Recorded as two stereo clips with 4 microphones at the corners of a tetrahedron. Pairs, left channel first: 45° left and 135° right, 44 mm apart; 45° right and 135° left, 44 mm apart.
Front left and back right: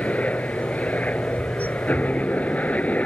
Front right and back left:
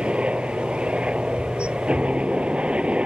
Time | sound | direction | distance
0.0 | a helicopter | 85° left | ?